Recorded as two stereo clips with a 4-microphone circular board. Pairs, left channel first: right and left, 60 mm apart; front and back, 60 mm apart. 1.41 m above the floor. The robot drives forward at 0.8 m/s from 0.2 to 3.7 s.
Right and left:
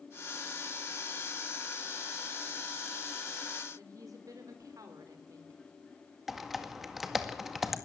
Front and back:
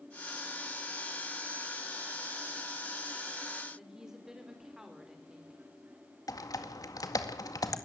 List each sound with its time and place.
3.8 s a woman speaking: 100° left, 4 m
6.3 s typing on a keyboard: 5° left, 1.9 m